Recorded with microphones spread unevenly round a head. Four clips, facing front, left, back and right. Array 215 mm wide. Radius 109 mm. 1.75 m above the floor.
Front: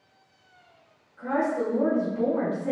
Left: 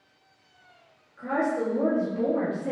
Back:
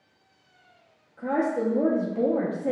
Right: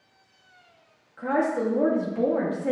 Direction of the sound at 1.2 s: 160° right.